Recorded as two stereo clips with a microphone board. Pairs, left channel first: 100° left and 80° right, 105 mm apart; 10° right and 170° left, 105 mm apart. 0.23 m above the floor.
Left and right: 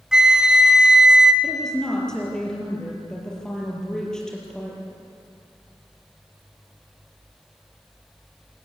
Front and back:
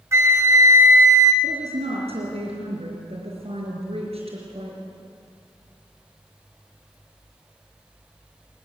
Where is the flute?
155° right, 1.6 m.